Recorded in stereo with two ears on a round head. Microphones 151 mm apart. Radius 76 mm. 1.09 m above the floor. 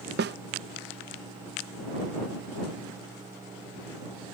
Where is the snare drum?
70° right (ahead or behind).